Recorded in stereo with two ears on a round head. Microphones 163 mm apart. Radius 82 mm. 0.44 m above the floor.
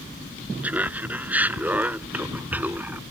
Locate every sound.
0.6 s laughter: 10° right (ahead or behind)